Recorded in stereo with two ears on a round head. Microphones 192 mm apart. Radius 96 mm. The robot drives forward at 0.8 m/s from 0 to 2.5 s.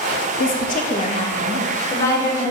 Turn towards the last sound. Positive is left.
turn(degrees=15)  # may be behind; listen again after turning